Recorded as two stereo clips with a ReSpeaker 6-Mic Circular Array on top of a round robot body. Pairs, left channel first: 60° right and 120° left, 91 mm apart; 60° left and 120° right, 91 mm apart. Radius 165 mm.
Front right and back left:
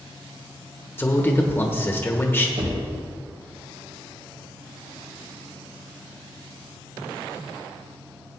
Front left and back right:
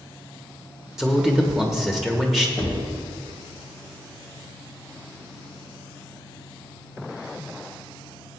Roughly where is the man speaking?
Ahead right.